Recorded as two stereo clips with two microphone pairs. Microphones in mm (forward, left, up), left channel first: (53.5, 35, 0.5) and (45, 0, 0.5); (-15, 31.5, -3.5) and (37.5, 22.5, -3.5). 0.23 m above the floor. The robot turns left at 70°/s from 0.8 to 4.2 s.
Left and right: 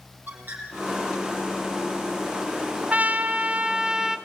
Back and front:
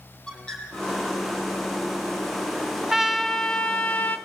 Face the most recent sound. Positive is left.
turn(degrees=-170)